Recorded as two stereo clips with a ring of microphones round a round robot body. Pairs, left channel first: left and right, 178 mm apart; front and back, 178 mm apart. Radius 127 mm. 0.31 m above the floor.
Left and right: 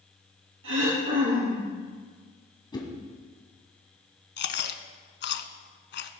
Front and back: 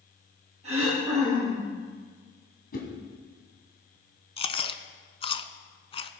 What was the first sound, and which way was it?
Throat clearing, 115° right.